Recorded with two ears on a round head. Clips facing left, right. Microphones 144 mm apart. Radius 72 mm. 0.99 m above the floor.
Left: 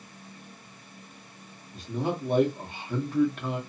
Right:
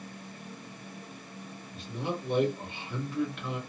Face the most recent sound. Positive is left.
turn(degrees=35)  # may be behind; listen again after turning